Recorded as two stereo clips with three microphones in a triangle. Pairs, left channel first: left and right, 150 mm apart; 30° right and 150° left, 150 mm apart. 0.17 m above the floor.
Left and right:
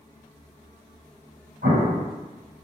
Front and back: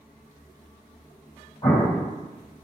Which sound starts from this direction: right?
An explosion, at 1.6 s.